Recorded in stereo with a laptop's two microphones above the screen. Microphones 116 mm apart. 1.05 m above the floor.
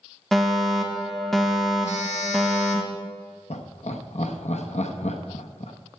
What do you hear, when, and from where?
0.3 s a fire alarm: centre (ahead or behind), 1.7 m
1.8 s a phone buzzing: 80° left, 1.5 m
3.5 s laughter: 70° left (ahead or behind), 0.9 m